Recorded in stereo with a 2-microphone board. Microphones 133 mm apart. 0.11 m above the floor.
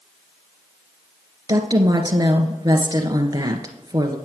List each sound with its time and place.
1.5 s a woman speaking: 30° right (ahead or behind), 1.5 m